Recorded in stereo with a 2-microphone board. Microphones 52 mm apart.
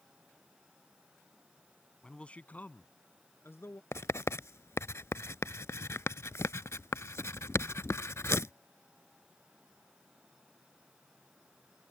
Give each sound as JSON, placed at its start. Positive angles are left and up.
{"t": 2.0, "sound": "a man speaking", "side_deg": 15}
{"t": 3.9, "sound": "writing", "side_deg": 65}